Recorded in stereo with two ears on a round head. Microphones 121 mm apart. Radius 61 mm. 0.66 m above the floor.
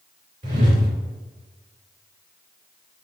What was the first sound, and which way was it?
A whoosh, 60° right (ahead or behind).